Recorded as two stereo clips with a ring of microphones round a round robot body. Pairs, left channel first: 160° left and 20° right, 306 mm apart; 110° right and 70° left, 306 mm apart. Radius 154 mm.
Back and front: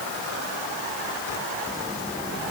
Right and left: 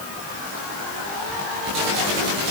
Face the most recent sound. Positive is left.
No sound to turn to.